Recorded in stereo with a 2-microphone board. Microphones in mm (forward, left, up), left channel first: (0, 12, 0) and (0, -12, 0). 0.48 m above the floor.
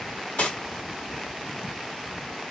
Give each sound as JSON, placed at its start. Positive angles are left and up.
{"t": 0.4, "sound": "cutlery clinking", "side_deg": 75, "distance_m": 1.2}